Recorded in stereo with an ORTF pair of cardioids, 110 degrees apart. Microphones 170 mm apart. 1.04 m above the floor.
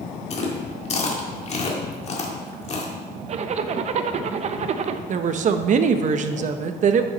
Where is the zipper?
45° right, 0.7 m.